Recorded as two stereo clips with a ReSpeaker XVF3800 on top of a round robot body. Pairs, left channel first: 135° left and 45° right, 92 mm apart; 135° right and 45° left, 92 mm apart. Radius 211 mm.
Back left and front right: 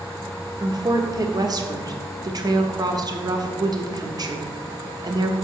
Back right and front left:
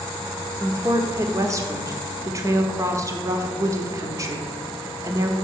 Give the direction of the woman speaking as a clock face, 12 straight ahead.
12 o'clock.